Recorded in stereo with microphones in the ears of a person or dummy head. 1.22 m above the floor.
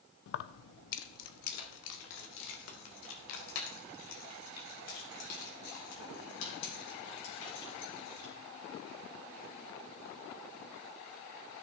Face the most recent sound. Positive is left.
turn(degrees=85)